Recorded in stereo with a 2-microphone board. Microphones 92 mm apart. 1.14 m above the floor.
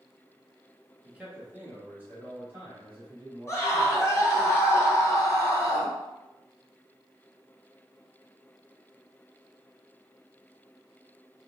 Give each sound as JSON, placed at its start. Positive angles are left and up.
{"t": 1.0, "sound": "a man speaking", "side_deg": -10, "distance_m": 1.4}
{"t": 3.5, "sound": "a scream", "side_deg": 30, "distance_m": 1.3}